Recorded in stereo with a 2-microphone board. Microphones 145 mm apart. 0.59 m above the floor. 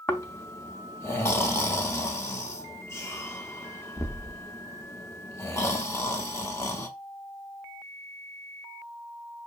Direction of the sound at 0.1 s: 15° left (ahead or behind).